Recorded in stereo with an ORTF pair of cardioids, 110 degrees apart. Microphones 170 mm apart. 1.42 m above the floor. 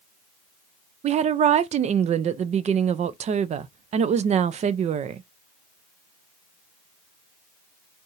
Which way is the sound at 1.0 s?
40° right.